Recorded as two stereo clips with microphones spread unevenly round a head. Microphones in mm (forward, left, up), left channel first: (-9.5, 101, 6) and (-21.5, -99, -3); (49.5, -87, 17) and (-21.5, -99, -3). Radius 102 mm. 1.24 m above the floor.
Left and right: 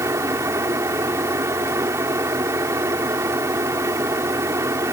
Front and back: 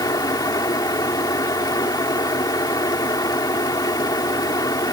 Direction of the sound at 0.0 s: 15° right.